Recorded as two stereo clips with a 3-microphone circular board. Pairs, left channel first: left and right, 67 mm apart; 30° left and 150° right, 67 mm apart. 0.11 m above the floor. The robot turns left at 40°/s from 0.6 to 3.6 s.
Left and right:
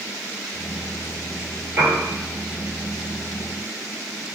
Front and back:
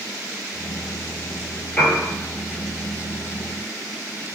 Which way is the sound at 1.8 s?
50° right.